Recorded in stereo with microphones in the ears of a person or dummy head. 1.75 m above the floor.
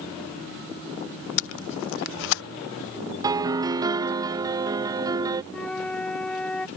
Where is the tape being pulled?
65° left (ahead or behind).